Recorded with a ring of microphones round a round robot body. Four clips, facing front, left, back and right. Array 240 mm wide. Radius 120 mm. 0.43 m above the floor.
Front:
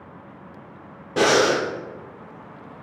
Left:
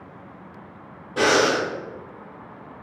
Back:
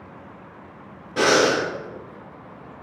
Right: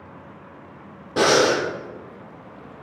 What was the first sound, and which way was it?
Breathing, 55° right.